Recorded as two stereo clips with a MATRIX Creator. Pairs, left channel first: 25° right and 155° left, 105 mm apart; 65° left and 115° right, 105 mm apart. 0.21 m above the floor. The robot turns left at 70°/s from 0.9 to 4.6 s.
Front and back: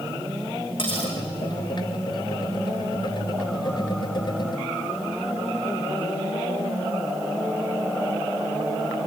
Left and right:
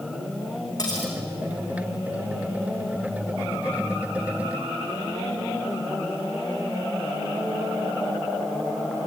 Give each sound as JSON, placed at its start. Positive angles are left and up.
{"t": 0.8, "sound": "cutlery clinking", "azimuth_deg": 15, "distance_m": 7.0}